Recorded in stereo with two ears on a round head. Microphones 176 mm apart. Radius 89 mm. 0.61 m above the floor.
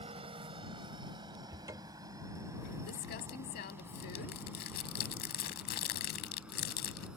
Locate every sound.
0.0 s a helicopter: 30° right (ahead or behind); by 7.2 s 5° right (ahead or behind)
1.5 s a cupboard door: 20° right (ahead or behind)
2.9 s crumpling: 50° left (ahead or behind)